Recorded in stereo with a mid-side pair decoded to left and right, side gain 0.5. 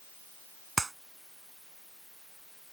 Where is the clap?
20° right.